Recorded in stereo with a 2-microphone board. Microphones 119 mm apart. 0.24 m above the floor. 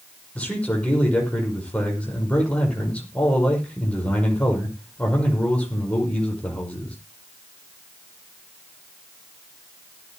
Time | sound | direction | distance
0.3 | a man speaking | 10° left (ahead or behind) | 6 m